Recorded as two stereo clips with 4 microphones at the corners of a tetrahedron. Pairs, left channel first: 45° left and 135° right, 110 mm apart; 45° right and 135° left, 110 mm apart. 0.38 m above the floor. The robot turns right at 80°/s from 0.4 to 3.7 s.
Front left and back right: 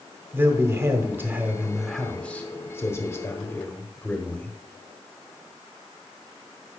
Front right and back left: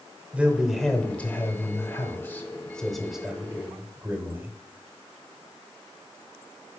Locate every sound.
0.3 s a man speaking: 165° right, 1.0 m; by 4.6 s 100° left, 1.0 m